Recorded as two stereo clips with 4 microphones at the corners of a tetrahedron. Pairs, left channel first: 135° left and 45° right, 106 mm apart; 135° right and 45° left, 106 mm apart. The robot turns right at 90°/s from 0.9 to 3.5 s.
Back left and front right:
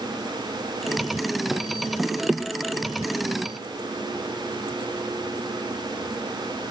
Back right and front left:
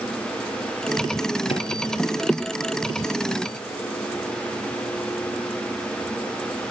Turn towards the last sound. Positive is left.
turn(degrees=45)